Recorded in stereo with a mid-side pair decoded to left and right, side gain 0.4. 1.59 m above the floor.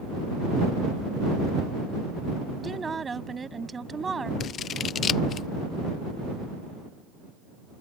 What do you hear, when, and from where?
2.6 s a woman speaking: 35° right
4.4 s scissors: 65° left